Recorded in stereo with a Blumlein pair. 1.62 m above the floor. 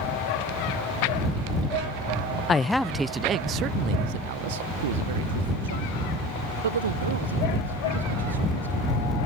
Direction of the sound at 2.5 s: 20° left.